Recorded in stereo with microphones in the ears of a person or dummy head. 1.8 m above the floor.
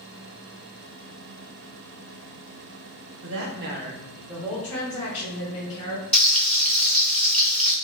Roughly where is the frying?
Centre.